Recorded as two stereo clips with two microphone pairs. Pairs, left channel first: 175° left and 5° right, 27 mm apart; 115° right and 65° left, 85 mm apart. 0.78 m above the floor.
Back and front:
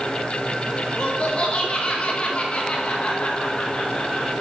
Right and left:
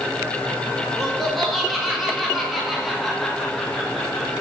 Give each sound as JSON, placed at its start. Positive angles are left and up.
{"t": 0.9, "sound": "laughter", "azimuth_deg": 155, "distance_m": 1.3}